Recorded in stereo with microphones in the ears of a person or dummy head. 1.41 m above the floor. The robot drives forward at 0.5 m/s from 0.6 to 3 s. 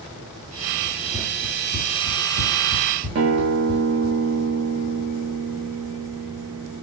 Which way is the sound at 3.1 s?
70° right (ahead or behind).